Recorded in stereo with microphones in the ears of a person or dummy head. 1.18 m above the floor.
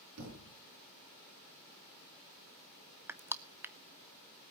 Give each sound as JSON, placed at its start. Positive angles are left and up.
{"t": 0.2, "sound": "a thud", "side_deg": -80, "distance_m": 5.0}
{"t": 3.1, "sound": "crushing", "side_deg": -10, "distance_m": 0.7}